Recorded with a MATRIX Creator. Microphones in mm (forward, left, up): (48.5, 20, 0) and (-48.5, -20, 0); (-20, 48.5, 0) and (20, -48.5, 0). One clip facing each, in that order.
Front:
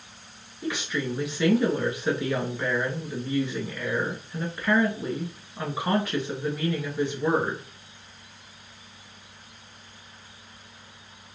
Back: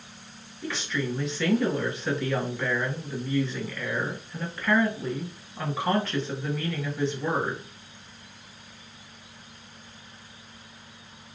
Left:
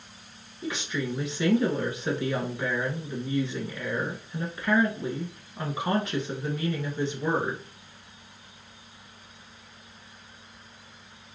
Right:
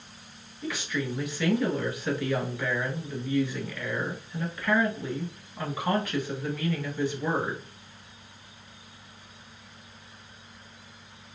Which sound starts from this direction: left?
A woman speaking, at 0.6 s.